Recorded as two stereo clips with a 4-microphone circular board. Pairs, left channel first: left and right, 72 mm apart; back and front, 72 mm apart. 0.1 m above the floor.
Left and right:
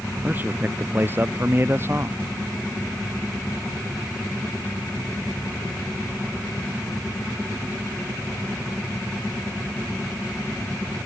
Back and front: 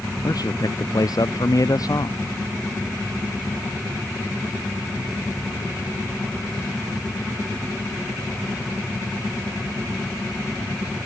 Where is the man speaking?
155° right; by 2.2 s 145° right.